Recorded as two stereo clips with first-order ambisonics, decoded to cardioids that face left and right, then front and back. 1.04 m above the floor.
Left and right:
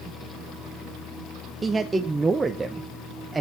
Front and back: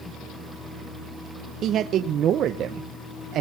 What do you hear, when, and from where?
1.6 s a man speaking: 160° right, 0.7 m